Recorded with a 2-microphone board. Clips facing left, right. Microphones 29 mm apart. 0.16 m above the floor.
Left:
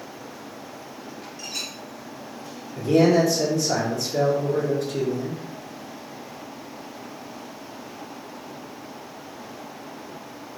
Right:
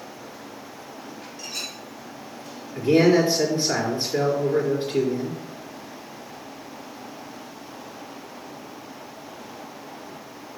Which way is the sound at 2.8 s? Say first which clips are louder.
Right 1 dB; 35° right (ahead or behind).